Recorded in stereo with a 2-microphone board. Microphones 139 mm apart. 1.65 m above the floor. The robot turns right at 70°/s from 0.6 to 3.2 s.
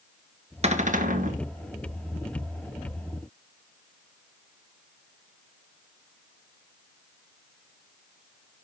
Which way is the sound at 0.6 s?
130° right.